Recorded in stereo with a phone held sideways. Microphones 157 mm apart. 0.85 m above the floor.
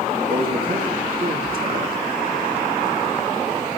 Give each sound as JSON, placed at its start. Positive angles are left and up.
{"t": 0.3, "sound": "a man speaking", "side_deg": -80, "distance_m": 6.0}